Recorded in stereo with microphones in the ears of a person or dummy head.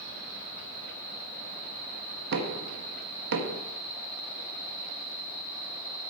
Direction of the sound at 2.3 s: 65° right (ahead or behind).